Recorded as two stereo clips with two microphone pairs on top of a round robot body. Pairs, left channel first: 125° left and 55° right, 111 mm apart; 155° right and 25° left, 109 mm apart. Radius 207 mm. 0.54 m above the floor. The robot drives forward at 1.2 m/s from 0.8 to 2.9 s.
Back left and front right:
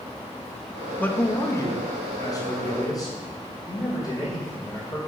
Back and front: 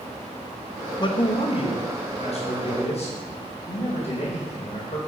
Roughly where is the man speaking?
Behind.